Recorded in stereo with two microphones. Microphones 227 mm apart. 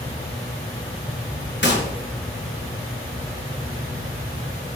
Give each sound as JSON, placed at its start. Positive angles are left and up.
{"t": 1.6, "sound": "a gunshot", "side_deg": 50, "distance_m": 3.5}